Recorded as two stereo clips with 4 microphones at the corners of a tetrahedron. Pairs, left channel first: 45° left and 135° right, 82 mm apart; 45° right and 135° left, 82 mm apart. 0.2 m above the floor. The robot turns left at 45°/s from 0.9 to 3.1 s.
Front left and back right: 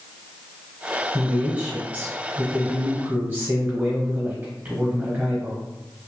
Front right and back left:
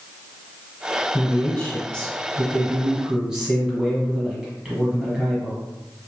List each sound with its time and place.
1.1 s a man speaking: 70° right, 1.2 m; by 5.6 s 160° right, 1.2 m